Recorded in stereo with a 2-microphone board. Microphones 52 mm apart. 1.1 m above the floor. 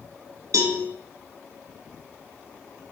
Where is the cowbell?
85° right, 1.1 m.